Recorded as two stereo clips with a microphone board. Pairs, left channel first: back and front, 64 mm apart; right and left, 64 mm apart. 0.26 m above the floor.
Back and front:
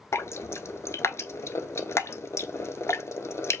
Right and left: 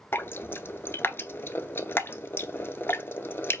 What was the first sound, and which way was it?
Dripping, 140° right.